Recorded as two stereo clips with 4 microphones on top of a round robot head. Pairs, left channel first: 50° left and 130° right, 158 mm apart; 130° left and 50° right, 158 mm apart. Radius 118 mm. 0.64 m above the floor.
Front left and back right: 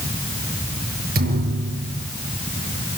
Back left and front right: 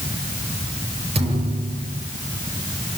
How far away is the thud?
About 6.5 m.